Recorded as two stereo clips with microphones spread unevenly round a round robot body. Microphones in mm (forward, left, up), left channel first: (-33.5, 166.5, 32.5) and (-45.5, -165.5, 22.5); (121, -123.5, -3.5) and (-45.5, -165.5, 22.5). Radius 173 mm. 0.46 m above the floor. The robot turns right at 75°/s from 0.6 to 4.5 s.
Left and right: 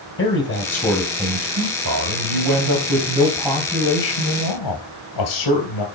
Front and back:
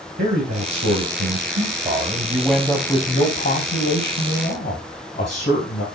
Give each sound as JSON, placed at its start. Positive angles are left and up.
{"t": 0.2, "sound": "a man speaking", "azimuth_deg": 145, "distance_m": 3.5}